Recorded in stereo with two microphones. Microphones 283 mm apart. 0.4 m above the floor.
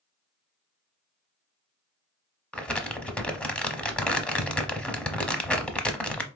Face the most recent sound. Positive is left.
turn(degrees=5)  # may be behind; listen again after turning